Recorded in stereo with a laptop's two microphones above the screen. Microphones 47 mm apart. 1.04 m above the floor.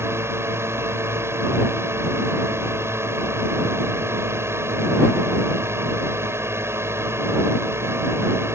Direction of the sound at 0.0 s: 70° right (ahead or behind).